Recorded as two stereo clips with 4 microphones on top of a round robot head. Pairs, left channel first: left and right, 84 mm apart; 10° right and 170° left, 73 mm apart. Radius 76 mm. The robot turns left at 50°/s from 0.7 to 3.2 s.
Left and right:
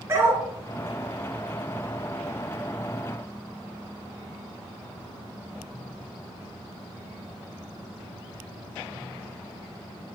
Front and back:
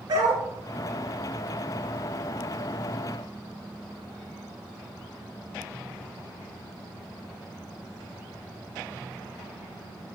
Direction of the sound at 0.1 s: 150° right.